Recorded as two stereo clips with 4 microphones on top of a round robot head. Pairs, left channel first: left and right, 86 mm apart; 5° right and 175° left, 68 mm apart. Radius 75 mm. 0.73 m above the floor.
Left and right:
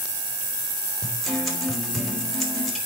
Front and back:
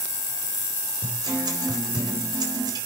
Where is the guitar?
Straight behind, 4.5 m.